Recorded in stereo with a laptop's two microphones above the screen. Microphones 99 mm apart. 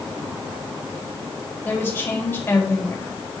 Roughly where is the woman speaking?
Left.